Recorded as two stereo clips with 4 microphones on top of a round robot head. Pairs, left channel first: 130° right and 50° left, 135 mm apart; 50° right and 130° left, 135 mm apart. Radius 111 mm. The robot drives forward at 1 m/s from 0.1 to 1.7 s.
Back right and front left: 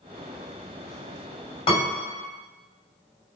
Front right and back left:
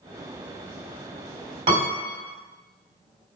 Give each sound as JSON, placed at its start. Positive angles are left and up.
{"t": 1.7, "sound": "a piano", "azimuth_deg": 180, "distance_m": 3.5}